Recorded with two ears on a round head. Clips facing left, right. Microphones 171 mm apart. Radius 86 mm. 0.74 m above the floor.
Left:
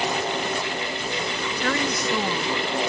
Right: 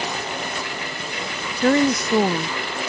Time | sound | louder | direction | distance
1.6 | a woman speaking | right 9 dB | 30° right (ahead or behind) | ?